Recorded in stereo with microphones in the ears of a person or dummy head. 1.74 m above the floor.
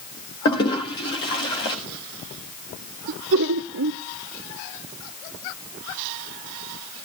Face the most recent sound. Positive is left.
turn(degrees=-55)  # may be behind; listen again after turning